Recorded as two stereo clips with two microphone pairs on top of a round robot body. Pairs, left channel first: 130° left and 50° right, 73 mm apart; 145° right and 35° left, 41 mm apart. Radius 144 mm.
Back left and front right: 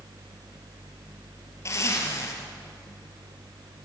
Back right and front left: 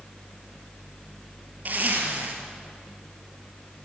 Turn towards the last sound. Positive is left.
turn(degrees=80)